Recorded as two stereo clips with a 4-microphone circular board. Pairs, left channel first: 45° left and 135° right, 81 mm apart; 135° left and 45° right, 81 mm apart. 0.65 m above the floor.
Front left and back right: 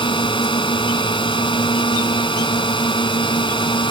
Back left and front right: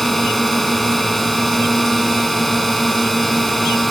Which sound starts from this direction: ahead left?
A drone, at 0.0 s.